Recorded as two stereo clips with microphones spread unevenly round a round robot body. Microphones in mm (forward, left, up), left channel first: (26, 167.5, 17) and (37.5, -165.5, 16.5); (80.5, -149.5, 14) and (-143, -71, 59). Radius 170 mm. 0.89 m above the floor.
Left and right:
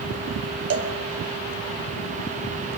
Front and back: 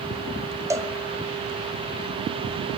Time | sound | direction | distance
0.7 | a cowbell | 115° right | 1.0 m